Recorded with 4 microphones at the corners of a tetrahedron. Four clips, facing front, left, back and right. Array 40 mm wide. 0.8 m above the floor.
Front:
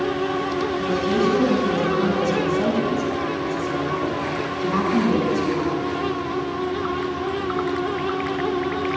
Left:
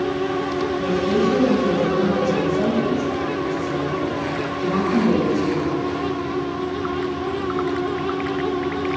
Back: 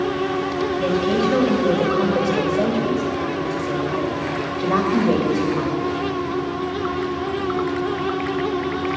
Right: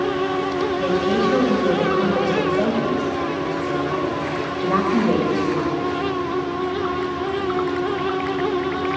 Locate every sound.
0.8 s a woman speaking: 155° right, 3.5 m